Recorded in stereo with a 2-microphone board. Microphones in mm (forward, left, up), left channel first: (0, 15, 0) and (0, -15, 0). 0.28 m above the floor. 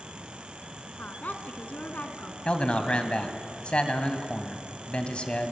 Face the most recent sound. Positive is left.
turn(degrees=35)  # may be behind; listen again after turning